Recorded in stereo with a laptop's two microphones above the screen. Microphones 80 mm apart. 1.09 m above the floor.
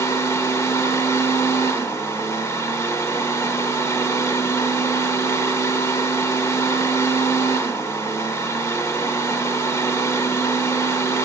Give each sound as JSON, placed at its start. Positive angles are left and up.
{"t": 0.0, "sound": "a fan", "side_deg": 35, "distance_m": 1.0}